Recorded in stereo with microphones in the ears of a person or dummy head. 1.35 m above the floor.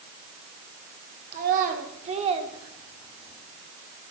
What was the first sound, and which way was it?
A child speaking, 55° right (ahead or behind).